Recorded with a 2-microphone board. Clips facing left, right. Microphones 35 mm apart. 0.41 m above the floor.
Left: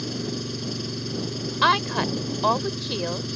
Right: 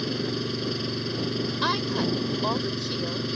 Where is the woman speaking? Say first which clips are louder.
Left 7 dB; 35° left (ahead or behind).